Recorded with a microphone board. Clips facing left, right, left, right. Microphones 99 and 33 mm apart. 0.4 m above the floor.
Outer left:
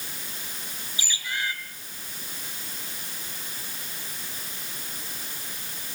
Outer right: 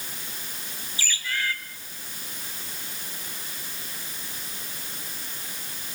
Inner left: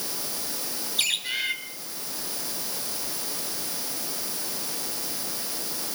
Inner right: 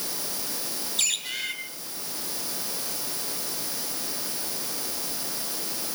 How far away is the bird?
About 2.5 m.